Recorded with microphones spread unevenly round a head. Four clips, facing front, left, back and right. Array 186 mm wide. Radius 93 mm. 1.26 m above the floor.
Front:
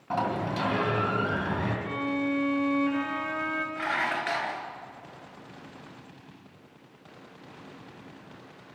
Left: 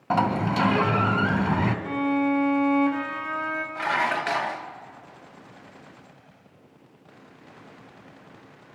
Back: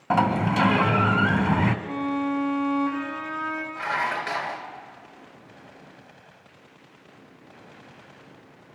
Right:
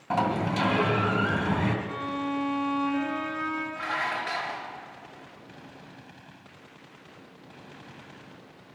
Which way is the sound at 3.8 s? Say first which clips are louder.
Left 5 dB, back 4 dB; 95° left.